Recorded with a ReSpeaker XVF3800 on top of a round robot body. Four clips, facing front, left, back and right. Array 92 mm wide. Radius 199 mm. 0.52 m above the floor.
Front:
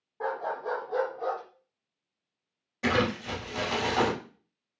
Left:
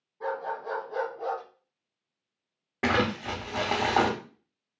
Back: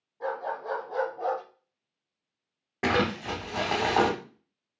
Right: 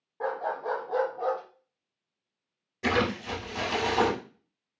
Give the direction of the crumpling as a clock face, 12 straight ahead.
8 o'clock.